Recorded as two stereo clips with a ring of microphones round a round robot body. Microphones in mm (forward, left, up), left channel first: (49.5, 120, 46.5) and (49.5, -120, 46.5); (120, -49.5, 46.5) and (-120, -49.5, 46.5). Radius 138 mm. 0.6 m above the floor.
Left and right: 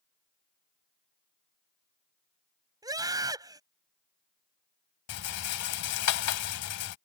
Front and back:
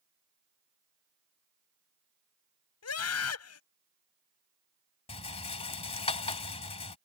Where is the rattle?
70° left.